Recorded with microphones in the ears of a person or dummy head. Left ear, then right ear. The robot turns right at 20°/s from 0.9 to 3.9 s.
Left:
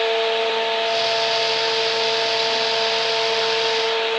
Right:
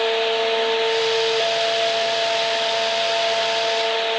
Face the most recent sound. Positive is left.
No sound to turn to.